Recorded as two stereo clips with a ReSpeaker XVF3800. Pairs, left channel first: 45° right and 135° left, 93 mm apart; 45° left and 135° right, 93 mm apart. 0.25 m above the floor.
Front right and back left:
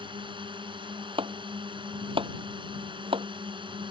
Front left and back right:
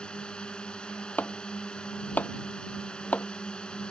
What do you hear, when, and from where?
0.0 s a drone: 125° left
1.2 s chopping: 120° left